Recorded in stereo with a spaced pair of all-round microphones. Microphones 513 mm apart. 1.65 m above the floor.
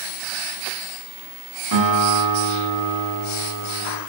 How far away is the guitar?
About 1.4 m.